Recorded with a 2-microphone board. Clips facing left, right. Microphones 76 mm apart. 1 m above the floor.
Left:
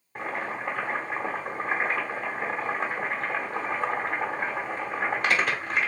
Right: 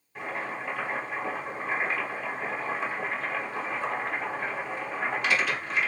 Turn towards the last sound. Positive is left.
turn(degrees=45)  # may be behind; listen again after turning